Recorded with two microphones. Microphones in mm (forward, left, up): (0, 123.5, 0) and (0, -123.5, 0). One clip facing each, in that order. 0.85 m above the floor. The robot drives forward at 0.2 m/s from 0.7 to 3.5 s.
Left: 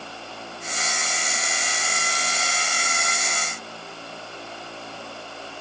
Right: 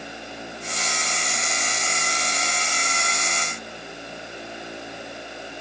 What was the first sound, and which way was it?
Only background noise.